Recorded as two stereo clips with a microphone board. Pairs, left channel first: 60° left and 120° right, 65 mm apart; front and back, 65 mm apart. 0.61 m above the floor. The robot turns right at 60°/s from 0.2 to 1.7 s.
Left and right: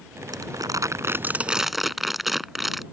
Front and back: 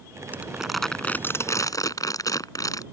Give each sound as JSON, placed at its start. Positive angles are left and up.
{"t": 0.3, "sound": "crumpling", "azimuth_deg": -115}